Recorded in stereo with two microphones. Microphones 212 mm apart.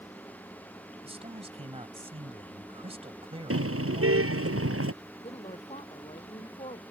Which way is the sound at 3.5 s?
80° right.